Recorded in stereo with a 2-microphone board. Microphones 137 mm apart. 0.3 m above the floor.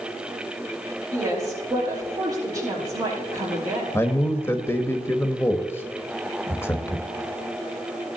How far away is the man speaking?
About 1.0 m.